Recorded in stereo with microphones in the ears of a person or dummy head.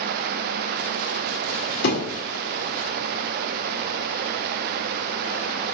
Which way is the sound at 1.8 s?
60° left (ahead or behind).